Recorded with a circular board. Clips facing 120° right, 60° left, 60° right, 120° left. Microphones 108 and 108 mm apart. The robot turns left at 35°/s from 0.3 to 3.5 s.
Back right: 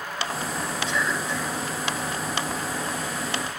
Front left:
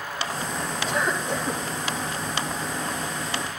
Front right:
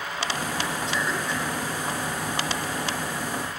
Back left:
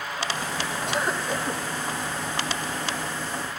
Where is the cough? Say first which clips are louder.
Front left 3 dB, back left 1 dB; 95° left, 3.5 m; by 1.6 s 70° left, 3.5 m.